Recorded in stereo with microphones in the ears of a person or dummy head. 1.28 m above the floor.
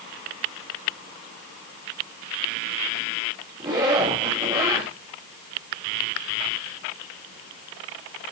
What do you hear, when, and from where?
3.6 s a zipper: 25° right (ahead or behind), 3 m